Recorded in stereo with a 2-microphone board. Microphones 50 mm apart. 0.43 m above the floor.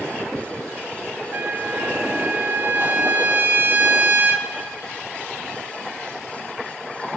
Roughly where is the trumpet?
Right.